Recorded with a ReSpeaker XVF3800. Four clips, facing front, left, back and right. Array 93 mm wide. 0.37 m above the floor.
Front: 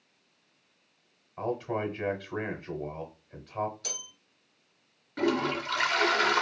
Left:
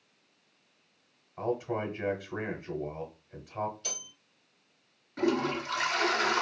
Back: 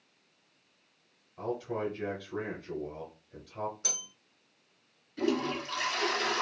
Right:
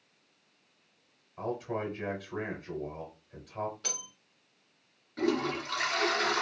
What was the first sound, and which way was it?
A man speaking, 25° left.